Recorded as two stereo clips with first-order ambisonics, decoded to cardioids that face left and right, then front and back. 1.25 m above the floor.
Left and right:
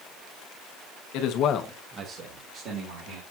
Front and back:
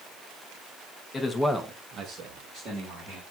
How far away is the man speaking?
About 1.0 m.